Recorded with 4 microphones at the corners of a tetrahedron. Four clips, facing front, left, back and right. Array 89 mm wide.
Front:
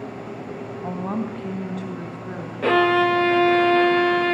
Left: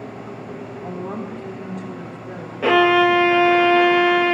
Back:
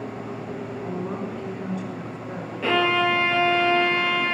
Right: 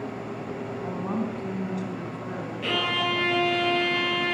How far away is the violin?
About 1.6 m.